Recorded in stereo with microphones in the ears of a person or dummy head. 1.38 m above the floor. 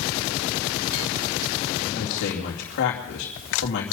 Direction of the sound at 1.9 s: 65° left (ahead or behind).